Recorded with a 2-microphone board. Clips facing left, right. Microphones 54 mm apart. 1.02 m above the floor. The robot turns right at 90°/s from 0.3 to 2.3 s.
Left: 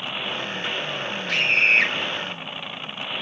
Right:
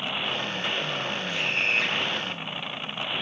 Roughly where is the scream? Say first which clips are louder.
Left 8 dB; left.